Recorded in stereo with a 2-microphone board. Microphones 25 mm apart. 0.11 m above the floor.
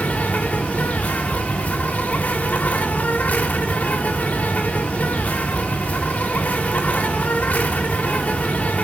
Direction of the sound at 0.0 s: 85° left.